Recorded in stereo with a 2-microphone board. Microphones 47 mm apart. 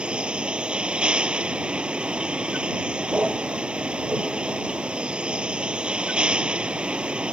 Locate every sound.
0.0 s a vehicle: 20° right (ahead or behind)